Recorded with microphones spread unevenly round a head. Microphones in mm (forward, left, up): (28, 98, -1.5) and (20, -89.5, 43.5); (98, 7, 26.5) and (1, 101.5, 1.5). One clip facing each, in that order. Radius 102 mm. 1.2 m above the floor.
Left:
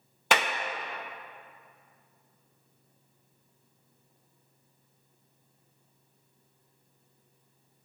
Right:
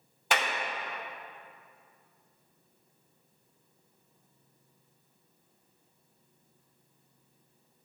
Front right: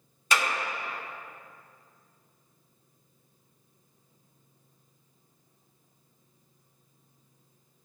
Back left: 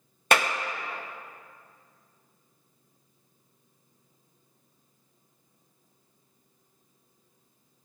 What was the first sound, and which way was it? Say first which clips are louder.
A clap: left 3 dB, back left 4 dB; 105° left.